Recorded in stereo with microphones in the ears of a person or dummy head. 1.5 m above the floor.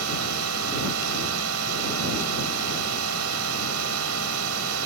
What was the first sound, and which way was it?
A drone, 75° right (ahead or behind).